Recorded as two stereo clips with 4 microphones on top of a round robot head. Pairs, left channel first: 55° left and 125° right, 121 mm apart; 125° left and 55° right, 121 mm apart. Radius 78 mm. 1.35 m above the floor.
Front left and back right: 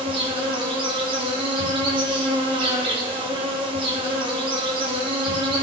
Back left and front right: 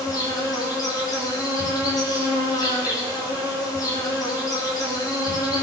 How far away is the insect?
About 5 m.